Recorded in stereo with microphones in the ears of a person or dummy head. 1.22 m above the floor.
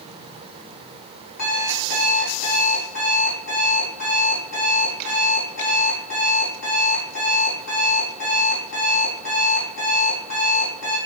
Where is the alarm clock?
70° left (ahead or behind), 4 m.